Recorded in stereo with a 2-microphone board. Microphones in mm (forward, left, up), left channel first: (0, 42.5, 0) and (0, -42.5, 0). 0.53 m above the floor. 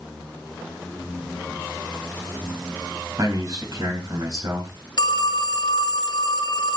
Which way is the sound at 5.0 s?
60° left (ahead or behind).